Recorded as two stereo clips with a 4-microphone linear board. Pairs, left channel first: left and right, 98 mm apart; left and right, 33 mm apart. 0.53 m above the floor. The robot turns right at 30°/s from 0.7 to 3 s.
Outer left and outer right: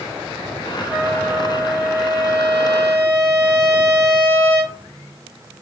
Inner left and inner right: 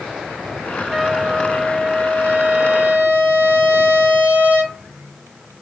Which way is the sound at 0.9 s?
175° right.